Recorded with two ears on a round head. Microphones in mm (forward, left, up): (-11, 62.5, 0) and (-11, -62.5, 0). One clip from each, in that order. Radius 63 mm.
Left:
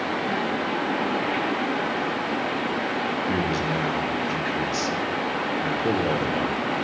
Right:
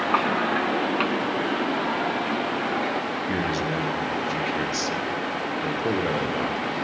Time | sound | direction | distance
3.3 | a man speaking | 15° right (ahead or behind) | 1.5 m